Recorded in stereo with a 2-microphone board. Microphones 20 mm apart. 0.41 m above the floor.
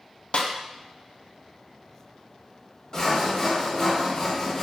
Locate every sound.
0.3 s a snare drum: 60° left (ahead or behind), 0.5 m
2.9 s sawing: 30° left (ahead or behind), 0.8 m